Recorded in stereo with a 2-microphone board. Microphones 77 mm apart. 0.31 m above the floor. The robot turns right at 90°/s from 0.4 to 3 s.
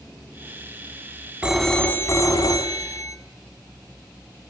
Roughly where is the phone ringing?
Ahead.